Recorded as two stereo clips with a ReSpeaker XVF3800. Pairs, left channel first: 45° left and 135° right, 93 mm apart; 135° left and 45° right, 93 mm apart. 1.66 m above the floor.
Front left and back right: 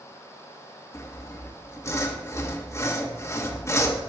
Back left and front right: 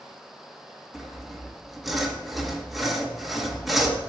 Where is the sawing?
45° left, 1.1 m.